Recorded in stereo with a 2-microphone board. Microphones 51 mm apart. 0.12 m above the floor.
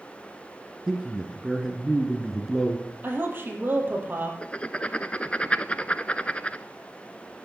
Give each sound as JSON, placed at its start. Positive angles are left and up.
{"t": 0.9, "sound": "a man speaking", "side_deg": -10, "distance_m": 1.9}
{"t": 3.0, "sound": "a woman speaking", "side_deg": -40, "distance_m": 3.5}
{"t": 4.4, "sound": "writing", "side_deg": 25, "distance_m": 0.5}